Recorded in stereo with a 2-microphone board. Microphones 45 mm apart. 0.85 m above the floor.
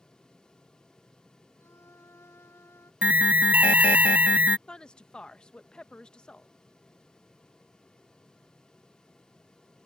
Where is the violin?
85° left.